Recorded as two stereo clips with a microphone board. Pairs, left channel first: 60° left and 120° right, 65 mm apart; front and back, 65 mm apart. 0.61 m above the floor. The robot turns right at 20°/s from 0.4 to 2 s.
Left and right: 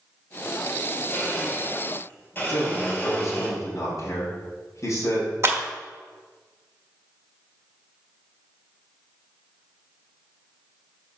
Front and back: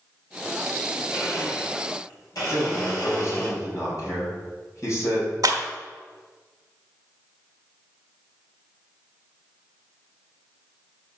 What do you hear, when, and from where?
1.1 s a blender: 15° right, 4 m; by 3.5 s 5° left, 4 m
2.5 s a man speaking: 30° left, 3.5 m
5.4 s a clap: 165° right, 1.3 m